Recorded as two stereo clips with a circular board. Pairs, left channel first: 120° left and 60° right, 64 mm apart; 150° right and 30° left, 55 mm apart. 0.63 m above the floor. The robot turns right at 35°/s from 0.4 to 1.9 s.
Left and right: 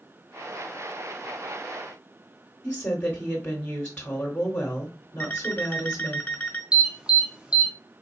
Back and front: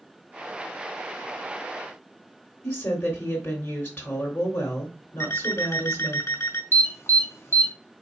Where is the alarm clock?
170° right, 1.4 m.